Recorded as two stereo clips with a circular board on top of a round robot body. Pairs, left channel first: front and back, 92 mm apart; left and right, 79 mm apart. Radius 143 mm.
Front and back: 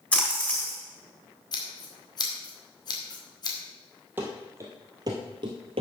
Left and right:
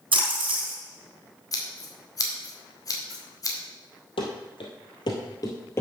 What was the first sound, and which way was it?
A splash, 80° right.